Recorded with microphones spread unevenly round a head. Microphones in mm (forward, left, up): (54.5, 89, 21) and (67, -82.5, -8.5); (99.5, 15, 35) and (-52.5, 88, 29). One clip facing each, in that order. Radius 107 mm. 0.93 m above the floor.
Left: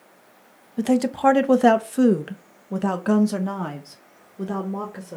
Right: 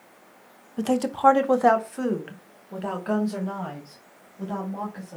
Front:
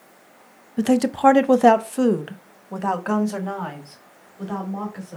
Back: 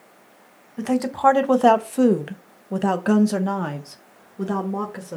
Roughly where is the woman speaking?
Ahead.